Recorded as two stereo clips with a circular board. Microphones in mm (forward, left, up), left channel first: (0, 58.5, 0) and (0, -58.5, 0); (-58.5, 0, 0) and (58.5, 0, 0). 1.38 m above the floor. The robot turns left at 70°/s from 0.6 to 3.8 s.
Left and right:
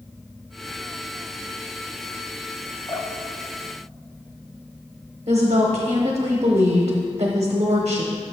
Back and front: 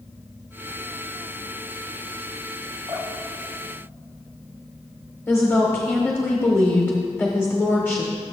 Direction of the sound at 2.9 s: 130° left.